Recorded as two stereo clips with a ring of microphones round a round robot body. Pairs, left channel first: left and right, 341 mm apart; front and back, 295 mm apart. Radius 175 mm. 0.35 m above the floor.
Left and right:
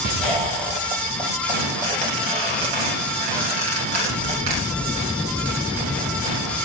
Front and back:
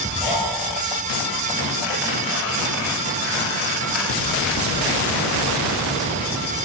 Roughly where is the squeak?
Right.